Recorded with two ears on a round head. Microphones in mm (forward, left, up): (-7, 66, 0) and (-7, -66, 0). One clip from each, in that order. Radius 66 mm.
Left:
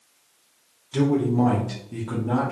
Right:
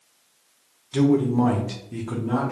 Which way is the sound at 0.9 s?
5° right (ahead or behind).